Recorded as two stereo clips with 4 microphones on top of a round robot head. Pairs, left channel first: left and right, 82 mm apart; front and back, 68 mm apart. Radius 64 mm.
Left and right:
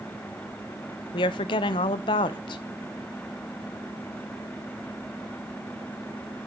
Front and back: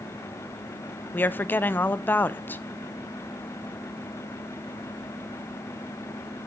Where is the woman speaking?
60° left, 0.7 m.